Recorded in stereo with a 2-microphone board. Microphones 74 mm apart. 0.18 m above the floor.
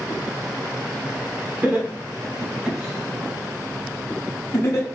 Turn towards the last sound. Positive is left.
turn(degrees=40)  # may be behind; listen again after turning